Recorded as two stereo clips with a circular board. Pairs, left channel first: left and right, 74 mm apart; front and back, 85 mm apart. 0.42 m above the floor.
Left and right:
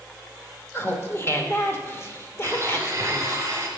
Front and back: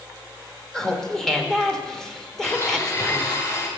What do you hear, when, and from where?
0.7 s laughter: 80° left, 1.0 m
2.4 s a blender: 45° right, 2.5 m